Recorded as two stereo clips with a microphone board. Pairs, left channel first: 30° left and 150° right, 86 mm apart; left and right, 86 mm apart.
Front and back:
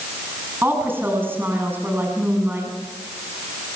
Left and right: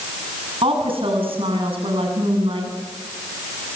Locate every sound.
0.6 s a woman speaking: 85° right, 8.5 m